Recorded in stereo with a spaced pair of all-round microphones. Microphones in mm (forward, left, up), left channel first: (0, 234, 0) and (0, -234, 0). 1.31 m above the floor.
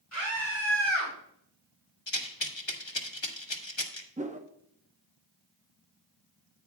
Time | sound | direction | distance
0.1 | a scream | 90° left | 6 m
2.1 | a rattle | 70° left (ahead or behind) | 1.4 m
4.2 | a whoosh | 15° right (ahead or behind) | 0.9 m